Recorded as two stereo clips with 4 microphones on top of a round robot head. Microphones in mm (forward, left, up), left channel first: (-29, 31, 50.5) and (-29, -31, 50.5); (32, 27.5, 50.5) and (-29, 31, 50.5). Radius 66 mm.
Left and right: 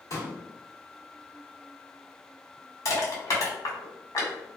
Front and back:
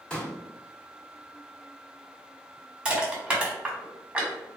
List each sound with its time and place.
0.1 s a pop: 70° left, 1.7 m
2.9 s crushing: 105° left, 2.0 m